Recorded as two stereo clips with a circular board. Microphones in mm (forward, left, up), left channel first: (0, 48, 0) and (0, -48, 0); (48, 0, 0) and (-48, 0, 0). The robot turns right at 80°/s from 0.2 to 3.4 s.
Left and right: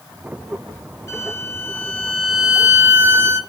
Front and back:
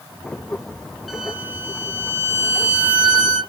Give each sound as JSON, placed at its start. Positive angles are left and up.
{"t": 1.1, "sound": "a violin", "azimuth_deg": 95, "distance_m": 0.7}